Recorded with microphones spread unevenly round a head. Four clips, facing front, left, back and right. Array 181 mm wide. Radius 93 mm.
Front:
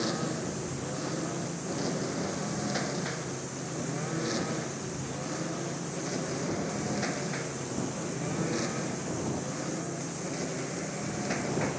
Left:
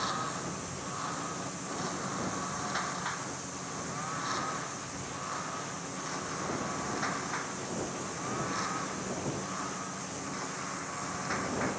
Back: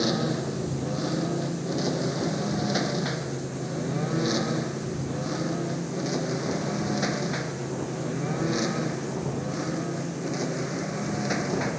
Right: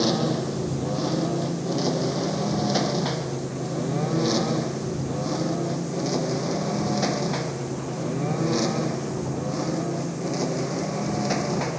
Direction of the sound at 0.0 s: 115° right.